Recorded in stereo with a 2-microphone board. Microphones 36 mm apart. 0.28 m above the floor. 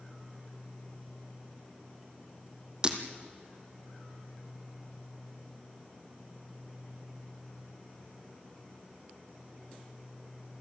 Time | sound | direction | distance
2.8 | breaking glass | 25° right (ahead or behind) | 2 m